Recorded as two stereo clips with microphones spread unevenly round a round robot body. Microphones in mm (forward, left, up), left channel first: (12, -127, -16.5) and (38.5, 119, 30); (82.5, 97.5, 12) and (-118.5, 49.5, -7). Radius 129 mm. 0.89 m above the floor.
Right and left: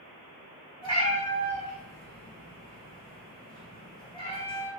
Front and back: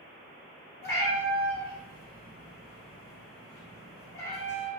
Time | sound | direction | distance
0.8 | a cat meowing | 25° right | 0.8 m